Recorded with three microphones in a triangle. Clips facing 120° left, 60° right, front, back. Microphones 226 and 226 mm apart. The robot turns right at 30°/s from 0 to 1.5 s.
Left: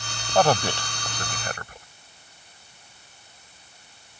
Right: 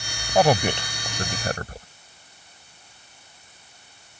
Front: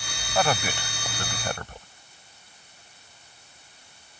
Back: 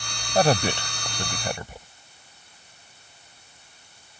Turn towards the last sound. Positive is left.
turn(degrees=-105)